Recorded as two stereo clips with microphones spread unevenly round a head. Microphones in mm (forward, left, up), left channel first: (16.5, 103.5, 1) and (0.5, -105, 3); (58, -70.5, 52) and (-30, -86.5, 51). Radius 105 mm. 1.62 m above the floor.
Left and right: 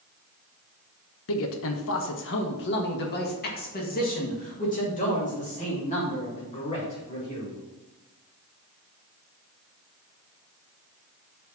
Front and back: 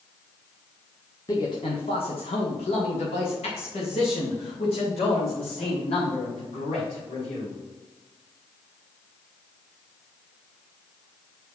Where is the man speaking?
85° left, 1.0 m; by 7.6 s 25° left, 3.5 m.